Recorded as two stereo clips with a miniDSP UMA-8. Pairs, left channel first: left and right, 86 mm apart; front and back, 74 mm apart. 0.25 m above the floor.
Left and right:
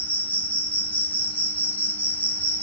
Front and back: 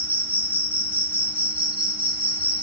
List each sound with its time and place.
0.0 s an insect: 135° left, 1.0 m